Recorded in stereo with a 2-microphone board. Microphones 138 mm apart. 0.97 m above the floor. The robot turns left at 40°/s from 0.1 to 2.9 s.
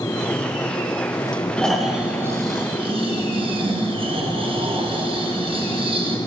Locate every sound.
1.6 s snoring: 10° left, 1.2 m; by 6.2 s 45° right, 1.2 m